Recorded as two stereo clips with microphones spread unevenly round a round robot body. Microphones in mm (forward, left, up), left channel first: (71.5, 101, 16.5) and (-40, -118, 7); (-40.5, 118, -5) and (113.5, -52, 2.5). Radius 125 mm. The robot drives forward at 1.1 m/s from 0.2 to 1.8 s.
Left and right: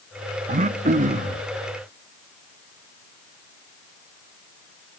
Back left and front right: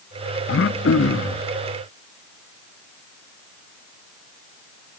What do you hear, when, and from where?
0.5 s throat clearing: straight behind, 0.5 m